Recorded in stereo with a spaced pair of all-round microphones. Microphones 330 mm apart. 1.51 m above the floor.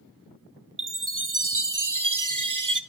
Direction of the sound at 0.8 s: 60° right (ahead or behind).